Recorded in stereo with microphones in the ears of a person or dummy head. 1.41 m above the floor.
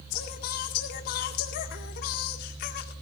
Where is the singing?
55° left (ahead or behind), 1.9 m.